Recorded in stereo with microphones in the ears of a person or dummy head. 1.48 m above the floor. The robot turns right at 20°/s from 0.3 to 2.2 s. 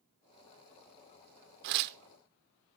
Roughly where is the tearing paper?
Right.